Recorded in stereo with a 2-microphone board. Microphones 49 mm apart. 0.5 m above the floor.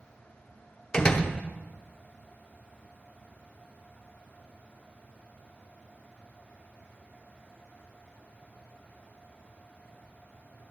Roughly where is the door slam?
Centre.